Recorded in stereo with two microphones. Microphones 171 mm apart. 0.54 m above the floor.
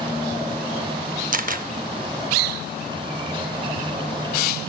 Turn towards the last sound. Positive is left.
turn(degrees=-55)  # may be behind; listen again after turning